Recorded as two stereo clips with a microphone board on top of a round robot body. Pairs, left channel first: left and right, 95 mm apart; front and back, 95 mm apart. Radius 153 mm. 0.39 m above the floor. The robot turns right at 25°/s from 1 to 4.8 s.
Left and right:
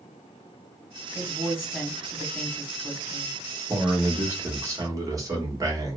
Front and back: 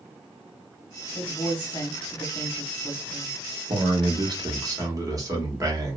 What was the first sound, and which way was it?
A woman speaking, 5° left.